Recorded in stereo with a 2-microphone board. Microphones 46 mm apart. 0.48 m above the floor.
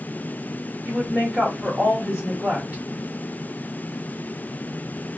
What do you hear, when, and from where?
0.8 s a woman speaking: 30° right (ahead or behind), 1.6 m